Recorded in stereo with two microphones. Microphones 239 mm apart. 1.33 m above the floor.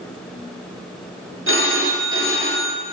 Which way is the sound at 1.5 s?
60° right (ahead or behind).